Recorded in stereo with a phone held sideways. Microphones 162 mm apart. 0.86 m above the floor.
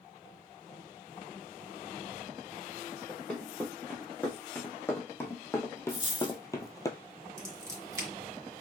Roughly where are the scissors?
Right.